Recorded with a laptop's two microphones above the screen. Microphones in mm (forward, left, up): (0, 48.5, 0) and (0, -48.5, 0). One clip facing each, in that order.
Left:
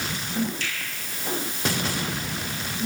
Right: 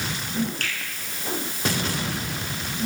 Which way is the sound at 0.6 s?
60° right (ahead or behind).